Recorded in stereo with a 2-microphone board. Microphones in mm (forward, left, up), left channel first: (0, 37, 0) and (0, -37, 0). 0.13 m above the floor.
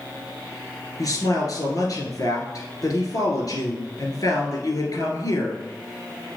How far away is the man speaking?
About 1.9 m.